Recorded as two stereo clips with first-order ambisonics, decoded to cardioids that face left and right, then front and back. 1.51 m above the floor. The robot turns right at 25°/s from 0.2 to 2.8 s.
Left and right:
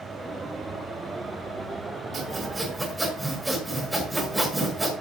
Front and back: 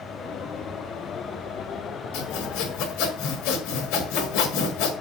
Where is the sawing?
20° right, 3.5 m; by 4.9 s 5° right, 3.5 m.